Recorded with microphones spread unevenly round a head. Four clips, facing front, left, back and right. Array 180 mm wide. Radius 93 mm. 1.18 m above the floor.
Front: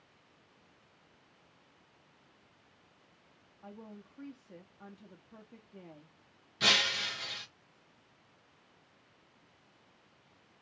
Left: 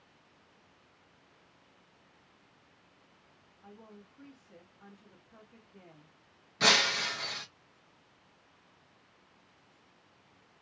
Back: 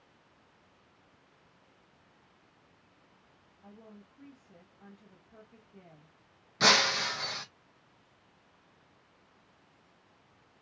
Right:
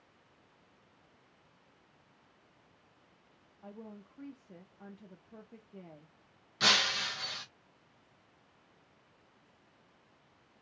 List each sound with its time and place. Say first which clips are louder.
3.6 s a woman speaking: right 4 dB, front 4 dB; 55° right, 0.9 m
6.6 s breaking glass: left 3 dB, back 7 dB; 145° left, 0.6 m